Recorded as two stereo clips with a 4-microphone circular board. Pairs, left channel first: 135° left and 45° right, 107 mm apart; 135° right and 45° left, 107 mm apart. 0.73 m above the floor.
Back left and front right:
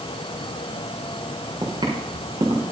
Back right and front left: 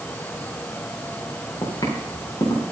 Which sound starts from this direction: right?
Footsteps, at 1.6 s.